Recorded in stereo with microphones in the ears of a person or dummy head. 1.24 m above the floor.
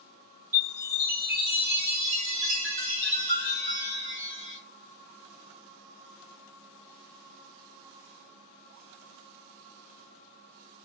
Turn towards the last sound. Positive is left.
turn(degrees=-55)  # may be behind; listen again after turning